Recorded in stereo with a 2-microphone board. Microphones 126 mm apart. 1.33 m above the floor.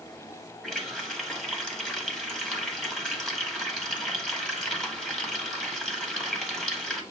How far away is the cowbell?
No cowbell in this recording.